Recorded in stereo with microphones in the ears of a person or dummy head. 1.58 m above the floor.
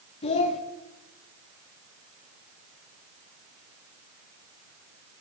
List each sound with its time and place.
0.2 s a child speaking: 30° left (ahead or behind), 0.8 m